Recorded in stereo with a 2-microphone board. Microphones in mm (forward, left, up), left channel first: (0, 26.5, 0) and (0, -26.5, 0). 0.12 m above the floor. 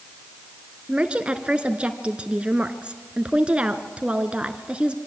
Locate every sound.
0.9 s a woman speaking: 20° right (ahead or behind), 1.5 m